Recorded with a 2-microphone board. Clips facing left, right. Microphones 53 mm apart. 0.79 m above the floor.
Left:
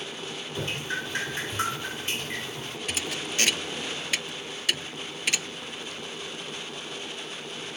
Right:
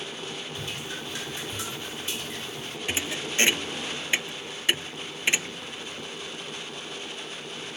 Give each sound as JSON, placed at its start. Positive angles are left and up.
{"t": 0.6, "sound": "dripping", "side_deg": 50}
{"t": 2.9, "sound": "a thud", "side_deg": -25}